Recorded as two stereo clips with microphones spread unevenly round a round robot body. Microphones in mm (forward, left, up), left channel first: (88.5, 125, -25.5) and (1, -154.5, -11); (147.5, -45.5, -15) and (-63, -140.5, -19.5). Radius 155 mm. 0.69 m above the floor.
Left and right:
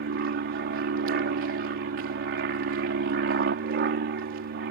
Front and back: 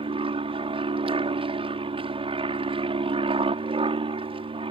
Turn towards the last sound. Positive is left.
turn(degrees=-110)